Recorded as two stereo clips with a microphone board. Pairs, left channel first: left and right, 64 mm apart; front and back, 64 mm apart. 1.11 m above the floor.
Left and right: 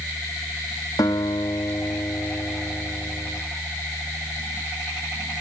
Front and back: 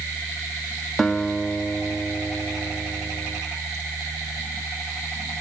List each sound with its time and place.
1.0 s a guitar: 90° left, 1.5 m